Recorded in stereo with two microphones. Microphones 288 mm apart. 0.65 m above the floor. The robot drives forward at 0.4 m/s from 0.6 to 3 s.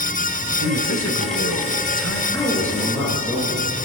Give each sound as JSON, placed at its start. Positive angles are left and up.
{"t": 0.6, "sound": "a man speaking", "side_deg": 65, "distance_m": 3.0}
{"t": 2.3, "sound": "a woman speaking", "side_deg": 5, "distance_m": 9.0}